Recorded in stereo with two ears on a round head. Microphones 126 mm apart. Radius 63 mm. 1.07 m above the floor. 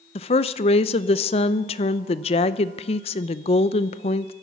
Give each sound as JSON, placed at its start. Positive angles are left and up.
{"t": 0.1, "sound": "a woman speaking", "side_deg": 45, "distance_m": 0.6}